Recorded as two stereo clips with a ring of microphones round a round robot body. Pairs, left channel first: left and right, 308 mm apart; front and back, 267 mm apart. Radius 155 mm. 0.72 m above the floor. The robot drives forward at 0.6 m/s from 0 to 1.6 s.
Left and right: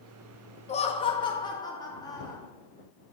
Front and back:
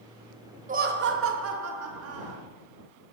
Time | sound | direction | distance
0.7 | laughter | 145° left | 0.6 m